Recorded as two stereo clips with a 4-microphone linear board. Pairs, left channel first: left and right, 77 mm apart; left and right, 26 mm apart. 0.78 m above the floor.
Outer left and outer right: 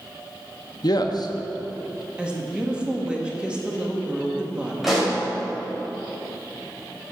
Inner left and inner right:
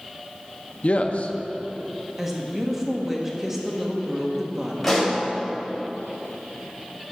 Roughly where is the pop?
Centre.